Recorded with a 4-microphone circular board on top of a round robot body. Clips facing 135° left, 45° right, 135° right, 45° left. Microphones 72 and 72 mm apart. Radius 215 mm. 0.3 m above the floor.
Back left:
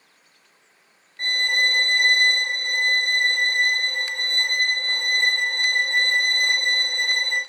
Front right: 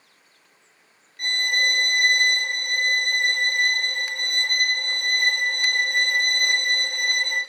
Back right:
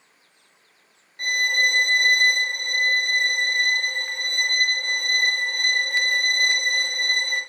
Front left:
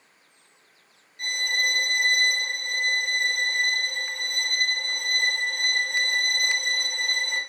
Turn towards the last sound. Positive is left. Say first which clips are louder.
# back left 1 dB, back right 5 dB
turn(degrees=-170)